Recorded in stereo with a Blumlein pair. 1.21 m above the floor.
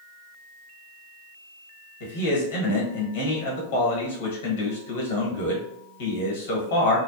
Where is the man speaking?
55° left, 1.2 m.